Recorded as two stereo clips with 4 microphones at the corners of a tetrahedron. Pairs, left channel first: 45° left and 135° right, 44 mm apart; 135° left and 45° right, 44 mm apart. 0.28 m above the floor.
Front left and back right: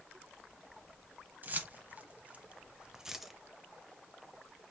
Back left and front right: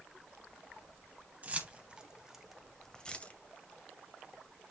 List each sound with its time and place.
1.4 s keys jangling: 95° right, 1.0 m; by 3.3 s 140° left, 0.7 m